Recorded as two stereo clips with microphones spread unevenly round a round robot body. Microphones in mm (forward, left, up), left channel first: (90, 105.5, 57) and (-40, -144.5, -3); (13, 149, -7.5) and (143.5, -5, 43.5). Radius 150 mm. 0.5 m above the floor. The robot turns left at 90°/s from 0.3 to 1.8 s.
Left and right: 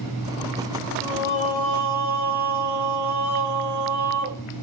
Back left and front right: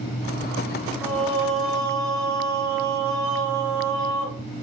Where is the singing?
15° left, 3 m; by 4.4 s 55° right, 3 m.